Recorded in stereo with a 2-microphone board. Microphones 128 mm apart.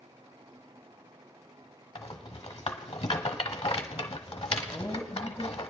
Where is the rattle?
45° left (ahead or behind), 1.0 m.